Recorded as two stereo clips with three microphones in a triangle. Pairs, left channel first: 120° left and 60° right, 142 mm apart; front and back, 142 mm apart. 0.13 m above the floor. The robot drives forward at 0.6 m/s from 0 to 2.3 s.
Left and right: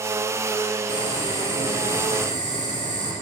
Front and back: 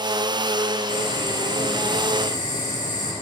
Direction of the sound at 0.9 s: 25° right.